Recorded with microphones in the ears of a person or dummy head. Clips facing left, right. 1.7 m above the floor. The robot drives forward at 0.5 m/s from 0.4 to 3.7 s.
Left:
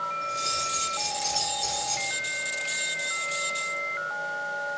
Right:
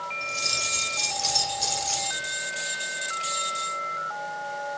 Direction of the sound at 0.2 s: 60° right (ahead or behind).